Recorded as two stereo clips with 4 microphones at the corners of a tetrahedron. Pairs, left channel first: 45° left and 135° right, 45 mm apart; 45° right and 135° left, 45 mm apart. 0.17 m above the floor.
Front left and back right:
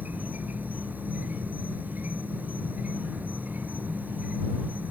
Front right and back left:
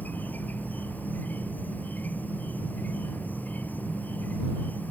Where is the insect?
90° right.